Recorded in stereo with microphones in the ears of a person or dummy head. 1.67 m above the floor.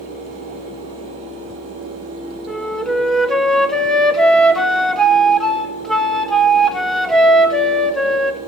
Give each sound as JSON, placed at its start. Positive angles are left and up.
{"t": 2.5, "sound": "a flute", "side_deg": 5, "distance_m": 0.6}